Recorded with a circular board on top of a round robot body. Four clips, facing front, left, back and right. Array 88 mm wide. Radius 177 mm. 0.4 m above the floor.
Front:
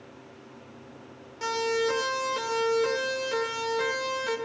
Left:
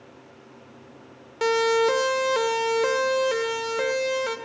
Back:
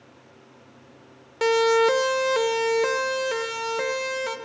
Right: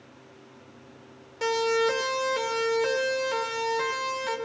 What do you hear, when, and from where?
1.4 s a siren: 150° left, 2.5 m; by 4.3 s 125° left, 4.5 m